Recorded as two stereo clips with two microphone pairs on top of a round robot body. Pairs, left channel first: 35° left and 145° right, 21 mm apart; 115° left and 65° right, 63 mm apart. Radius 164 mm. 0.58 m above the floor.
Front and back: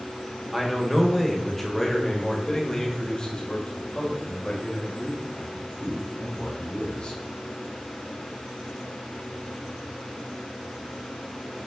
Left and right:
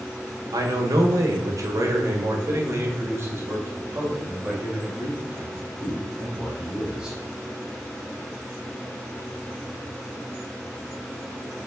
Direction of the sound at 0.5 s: 55° right.